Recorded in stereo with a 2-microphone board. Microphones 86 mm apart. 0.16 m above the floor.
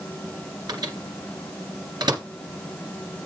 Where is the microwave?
50° right (ahead or behind), 2 m.